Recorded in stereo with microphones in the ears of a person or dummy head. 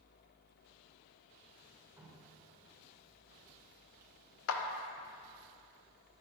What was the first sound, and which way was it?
Dripping, 10° right (ahead or behind).